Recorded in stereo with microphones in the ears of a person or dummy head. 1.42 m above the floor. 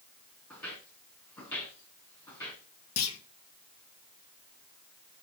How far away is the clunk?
About 1.1 m.